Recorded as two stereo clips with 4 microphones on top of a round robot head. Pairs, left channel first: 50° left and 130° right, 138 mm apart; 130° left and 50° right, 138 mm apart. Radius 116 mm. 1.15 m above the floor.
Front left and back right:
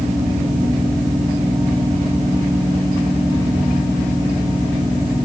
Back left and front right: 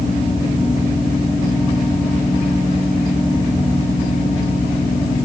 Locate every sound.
Only background noise.